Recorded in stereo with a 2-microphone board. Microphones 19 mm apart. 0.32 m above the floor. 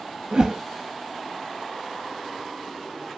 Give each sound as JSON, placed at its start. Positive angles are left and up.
{"t": 0.3, "sound": "a whoosh", "side_deg": -45, "distance_m": 0.5}